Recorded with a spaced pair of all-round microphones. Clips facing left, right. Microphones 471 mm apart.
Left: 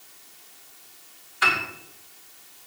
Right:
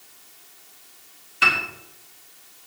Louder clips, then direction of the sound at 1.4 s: Even; 45° right (ahead or behind).